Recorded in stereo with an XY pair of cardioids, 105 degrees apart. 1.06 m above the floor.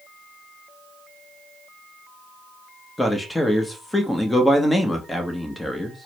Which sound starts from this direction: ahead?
A man speaking, at 3.0 s.